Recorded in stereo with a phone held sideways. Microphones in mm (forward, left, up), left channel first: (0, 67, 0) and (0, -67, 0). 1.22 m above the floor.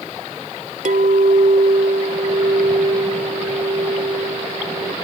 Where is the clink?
75° right (ahead or behind).